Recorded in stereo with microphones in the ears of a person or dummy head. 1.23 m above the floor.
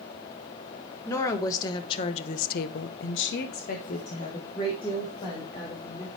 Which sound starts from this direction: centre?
A woman speaking, at 1.1 s.